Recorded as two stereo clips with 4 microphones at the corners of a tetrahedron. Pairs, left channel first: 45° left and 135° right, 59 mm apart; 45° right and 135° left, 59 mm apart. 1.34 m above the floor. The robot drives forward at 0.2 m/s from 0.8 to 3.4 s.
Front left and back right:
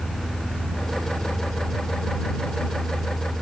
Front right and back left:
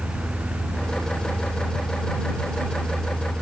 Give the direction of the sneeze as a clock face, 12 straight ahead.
I don't hear a sneeze.